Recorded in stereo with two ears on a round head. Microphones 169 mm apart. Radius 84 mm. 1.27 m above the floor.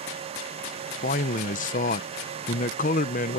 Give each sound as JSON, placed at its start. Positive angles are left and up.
{"t": 1.0, "sound": "a man speaking", "side_deg": 40}